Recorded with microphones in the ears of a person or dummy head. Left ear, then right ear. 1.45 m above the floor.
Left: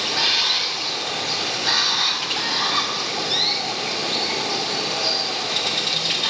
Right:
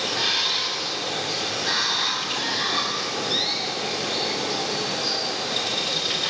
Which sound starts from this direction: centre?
Running water, at 0.0 s.